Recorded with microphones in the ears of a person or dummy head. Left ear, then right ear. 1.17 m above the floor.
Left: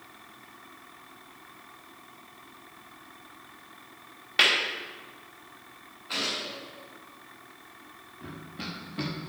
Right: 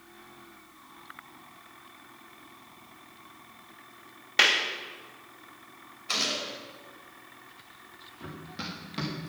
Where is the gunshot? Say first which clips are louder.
Right 2 dB; 70° right (ahead or behind), 4 m.